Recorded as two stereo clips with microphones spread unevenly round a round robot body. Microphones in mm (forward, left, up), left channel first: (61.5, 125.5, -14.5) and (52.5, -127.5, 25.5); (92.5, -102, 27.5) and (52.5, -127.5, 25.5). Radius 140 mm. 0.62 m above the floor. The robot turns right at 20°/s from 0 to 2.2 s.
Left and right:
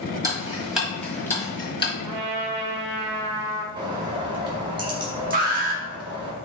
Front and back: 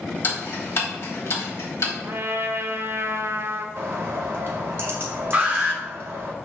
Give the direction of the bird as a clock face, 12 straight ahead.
6 o'clock.